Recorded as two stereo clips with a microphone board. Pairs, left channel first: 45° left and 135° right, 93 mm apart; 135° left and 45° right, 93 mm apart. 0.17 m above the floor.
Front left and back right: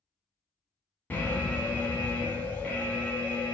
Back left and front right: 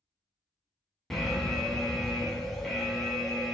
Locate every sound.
1.1 s an alarm: 55° left, 0.7 m